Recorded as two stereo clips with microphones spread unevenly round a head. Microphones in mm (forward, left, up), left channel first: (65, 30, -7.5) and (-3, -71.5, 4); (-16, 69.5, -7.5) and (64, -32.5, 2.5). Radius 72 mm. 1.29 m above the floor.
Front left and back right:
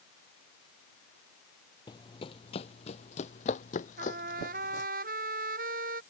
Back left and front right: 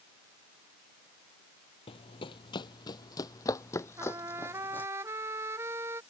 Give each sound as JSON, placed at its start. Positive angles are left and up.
{"t": 1.9, "sound": "running footsteps", "azimuth_deg": 105}
{"t": 4.0, "sound": "a trumpet", "azimuth_deg": -125}